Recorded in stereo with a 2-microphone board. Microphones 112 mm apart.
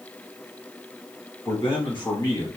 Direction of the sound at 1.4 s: 55° left (ahead or behind).